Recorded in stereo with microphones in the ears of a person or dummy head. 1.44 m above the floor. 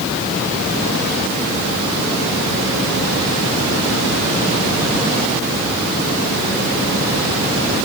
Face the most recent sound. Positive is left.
No sound to turn to.